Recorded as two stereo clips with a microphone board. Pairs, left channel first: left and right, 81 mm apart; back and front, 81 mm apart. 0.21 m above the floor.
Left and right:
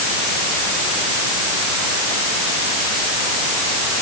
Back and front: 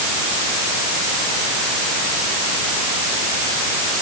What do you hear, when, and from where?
Only background noise.